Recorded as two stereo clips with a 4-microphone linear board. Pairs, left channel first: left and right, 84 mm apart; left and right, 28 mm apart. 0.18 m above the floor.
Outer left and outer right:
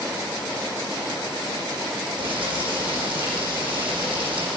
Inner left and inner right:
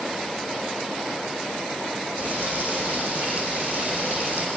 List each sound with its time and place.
2.2 s frying: 80° right, 7 m